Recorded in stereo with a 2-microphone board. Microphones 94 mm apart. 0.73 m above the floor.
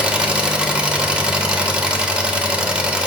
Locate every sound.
0.0 s an engine running: 10° right (ahead or behind), 0.8 m